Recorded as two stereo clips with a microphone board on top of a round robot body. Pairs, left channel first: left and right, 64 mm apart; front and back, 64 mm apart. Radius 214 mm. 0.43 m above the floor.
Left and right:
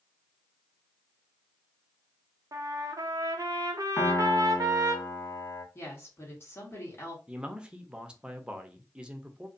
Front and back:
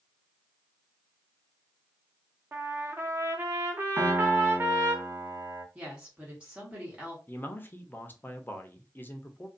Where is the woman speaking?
115° left, 1.5 m.